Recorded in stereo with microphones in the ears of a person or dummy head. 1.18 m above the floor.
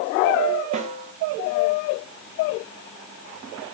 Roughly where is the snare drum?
Right.